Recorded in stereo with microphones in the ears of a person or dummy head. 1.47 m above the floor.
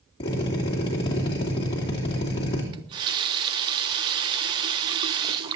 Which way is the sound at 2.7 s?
30° right (ahead or behind).